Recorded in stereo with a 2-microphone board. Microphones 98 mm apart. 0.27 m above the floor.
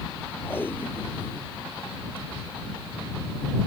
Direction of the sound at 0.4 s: 20° left (ahead or behind).